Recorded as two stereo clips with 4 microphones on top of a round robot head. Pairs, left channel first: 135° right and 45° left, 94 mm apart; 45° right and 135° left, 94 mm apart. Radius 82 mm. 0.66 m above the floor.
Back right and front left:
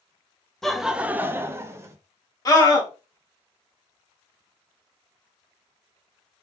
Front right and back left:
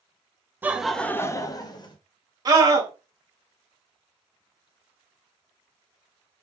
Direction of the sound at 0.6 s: 150° left.